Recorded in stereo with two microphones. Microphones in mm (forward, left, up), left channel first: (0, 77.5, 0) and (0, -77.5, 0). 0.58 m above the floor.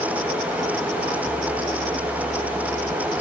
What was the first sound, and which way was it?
Only background noise.